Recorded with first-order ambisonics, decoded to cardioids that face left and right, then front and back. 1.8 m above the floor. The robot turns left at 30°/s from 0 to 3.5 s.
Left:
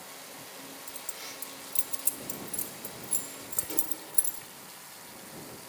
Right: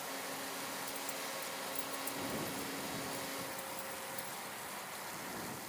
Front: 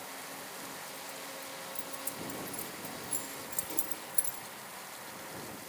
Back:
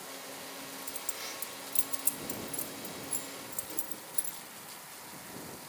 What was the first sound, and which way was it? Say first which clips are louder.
Keys jangling: right 1 dB, back 2 dB; 160° left.